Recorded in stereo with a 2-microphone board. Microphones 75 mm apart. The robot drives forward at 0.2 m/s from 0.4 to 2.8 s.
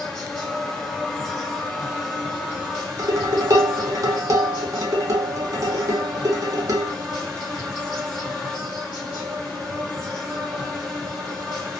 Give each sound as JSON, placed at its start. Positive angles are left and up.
{"t": 0.0, "sound": "an insect", "side_deg": 10, "distance_m": 1.5}
{"t": 3.0, "sound": "dishes clattering", "side_deg": -50, "distance_m": 0.8}